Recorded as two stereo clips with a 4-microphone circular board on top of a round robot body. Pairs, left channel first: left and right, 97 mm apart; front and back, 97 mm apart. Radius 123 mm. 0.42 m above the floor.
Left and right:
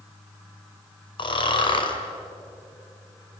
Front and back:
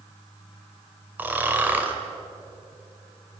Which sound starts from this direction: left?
Snoring, at 1.2 s.